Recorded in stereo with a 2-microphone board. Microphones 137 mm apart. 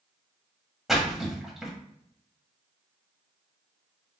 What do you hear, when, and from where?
0.9 s a splash: centre (ahead or behind), 1.2 m